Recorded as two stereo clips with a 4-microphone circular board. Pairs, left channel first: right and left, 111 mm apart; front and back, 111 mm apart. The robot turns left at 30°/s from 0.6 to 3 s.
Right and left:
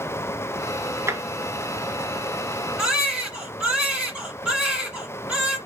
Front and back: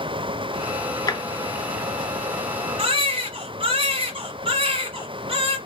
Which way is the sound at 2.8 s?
175° left.